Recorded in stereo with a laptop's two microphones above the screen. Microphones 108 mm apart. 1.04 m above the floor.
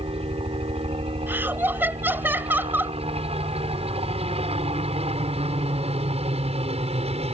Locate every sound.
0.0 s a helicopter: 65° right (ahead or behind); by 7.3 s 70° right (ahead or behind)
1.3 s laughter: 20° right (ahead or behind)